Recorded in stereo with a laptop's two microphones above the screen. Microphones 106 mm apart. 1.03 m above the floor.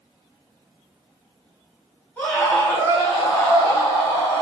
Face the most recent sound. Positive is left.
turn(degrees=40)  # may be behind; listen again after turning